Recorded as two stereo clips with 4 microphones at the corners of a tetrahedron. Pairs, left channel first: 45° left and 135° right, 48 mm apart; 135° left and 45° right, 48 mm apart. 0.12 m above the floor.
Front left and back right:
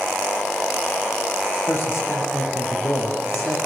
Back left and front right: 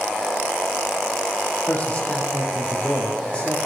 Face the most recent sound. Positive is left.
turn(degrees=70)